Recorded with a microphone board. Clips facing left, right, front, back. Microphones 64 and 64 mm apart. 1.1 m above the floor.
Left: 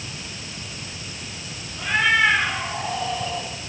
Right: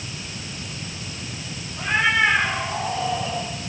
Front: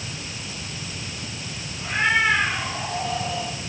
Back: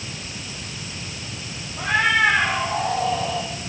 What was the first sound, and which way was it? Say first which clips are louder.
A cat meowing: left 1 dB, back 3 dB; 155° right.